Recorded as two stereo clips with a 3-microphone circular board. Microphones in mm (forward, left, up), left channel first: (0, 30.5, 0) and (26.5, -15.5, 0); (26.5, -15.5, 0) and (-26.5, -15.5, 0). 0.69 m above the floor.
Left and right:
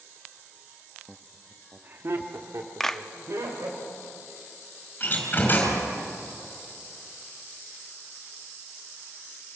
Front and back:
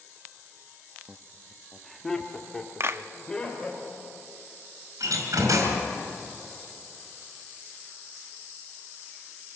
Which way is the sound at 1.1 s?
170° left.